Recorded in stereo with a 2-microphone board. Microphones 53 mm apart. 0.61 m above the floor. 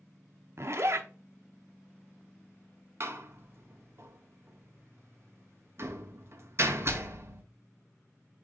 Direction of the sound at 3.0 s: 50° right (ahead or behind).